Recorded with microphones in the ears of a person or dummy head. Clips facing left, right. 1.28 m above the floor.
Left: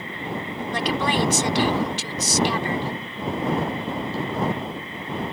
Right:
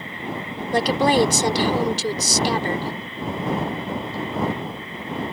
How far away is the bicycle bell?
I don't hear a bicycle bell.